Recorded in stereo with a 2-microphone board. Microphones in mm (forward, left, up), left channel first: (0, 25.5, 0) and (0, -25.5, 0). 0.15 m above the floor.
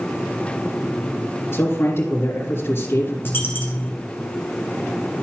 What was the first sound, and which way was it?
A man speaking, 50° left (ahead or behind).